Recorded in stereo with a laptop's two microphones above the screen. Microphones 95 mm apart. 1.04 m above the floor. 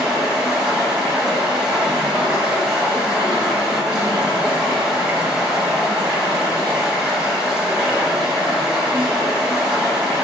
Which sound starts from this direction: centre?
Running water, at 0.0 s.